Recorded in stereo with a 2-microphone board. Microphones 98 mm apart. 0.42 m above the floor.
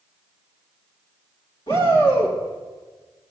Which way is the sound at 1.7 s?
70° left (ahead or behind).